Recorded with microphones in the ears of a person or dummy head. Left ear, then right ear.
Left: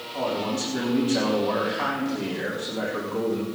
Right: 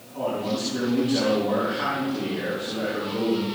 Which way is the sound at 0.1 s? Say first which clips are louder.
Even; 25° left (ahead or behind).